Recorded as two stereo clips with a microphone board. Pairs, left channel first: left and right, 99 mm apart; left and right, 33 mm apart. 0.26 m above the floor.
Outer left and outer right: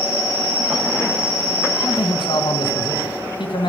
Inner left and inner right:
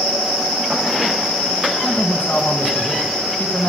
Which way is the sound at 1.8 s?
50° left (ahead or behind).